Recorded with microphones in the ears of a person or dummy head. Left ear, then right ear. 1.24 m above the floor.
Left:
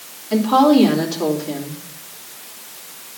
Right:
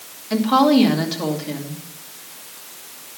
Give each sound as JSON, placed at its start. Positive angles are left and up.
{"t": 0.3, "sound": "a woman speaking", "side_deg": -45, "distance_m": 2.5}